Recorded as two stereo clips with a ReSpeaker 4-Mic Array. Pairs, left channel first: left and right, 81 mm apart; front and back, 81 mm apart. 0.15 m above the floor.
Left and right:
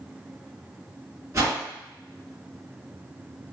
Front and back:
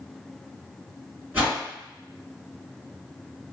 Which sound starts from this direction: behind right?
A whoosh, at 1.3 s.